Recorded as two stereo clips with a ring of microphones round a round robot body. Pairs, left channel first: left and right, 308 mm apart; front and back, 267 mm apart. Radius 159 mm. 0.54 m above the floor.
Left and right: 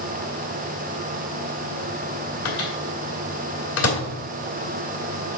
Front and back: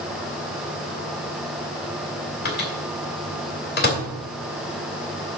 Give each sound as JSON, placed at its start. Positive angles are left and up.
{"t": 2.5, "sound": "a microwave", "azimuth_deg": 50, "distance_m": 2.0}